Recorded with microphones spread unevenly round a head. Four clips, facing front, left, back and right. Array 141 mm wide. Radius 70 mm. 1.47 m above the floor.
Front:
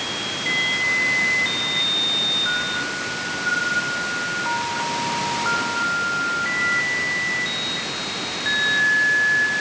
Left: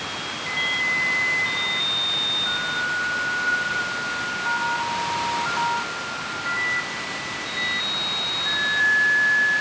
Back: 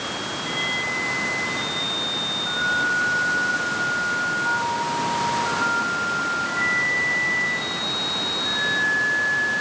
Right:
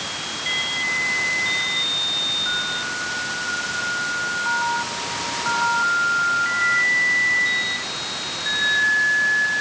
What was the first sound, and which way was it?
Only background noise.